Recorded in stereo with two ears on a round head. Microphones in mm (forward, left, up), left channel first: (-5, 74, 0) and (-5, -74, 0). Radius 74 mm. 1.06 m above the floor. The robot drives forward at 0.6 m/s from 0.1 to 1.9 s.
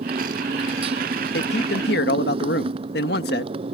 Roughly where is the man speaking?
Left.